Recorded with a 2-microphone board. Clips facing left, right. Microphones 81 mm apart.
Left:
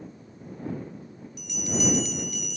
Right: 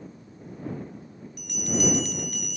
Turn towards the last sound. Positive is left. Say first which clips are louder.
# right 2 dB
turn(degrees=-55)  # may be behind; listen again after turning